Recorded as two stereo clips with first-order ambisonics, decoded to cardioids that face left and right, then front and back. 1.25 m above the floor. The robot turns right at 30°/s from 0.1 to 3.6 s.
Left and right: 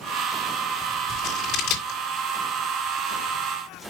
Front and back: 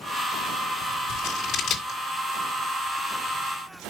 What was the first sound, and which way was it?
Scissors, 35° left.